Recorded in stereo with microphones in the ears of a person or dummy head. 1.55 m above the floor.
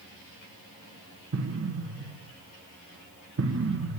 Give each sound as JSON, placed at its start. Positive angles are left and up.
{"t": 1.3, "sound": "an explosion", "side_deg": -75, "distance_m": 1.0}